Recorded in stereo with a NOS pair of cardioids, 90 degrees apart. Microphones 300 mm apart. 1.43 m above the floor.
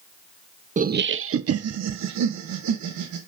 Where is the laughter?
25° right, 0.6 m; by 3.2 s 75° right, 1.9 m.